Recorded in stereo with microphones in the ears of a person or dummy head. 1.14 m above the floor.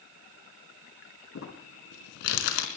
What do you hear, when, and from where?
1.4 s crumpling: 70° left (ahead or behind), 3.5 m